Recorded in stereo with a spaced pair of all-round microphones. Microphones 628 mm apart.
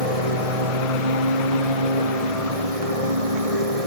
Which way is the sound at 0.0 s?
65° right (ahead or behind).